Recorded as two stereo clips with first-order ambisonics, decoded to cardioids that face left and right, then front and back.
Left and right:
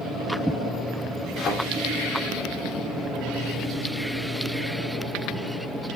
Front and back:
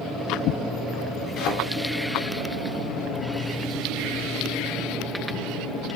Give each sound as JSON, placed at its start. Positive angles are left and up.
{"t": 1.4, "sound": "a thud", "azimuth_deg": 30, "distance_m": 2.5}